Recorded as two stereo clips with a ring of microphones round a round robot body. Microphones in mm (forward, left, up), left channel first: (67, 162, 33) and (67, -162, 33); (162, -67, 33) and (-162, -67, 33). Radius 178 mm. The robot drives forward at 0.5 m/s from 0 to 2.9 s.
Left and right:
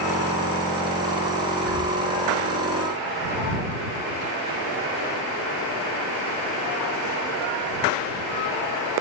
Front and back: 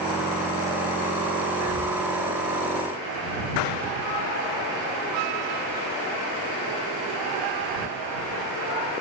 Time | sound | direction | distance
1.5 | breathing | 150° left | 1.7 m